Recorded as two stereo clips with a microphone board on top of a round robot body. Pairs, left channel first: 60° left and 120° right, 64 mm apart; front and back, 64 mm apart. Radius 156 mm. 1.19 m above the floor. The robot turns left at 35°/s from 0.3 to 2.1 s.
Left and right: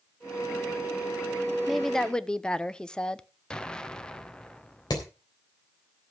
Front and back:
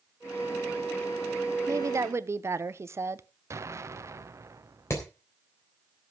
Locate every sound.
1.7 s a woman speaking: 150° left, 0.9 m; by 3.2 s 135° left, 0.9 m
3.5 s an explosion: 140° left, 1.1 m
4.9 s hammering: 50° left, 3 m